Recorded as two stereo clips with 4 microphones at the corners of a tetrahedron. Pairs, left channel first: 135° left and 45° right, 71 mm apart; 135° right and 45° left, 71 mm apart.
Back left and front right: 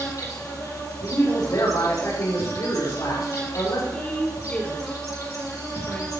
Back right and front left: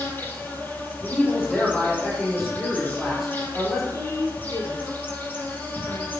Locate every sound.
0.0 s an insect: 165° left, 3.5 m
1.0 s a man speaking: 130° left, 8 m
3.9 s a woman speaking: 155° right, 5 m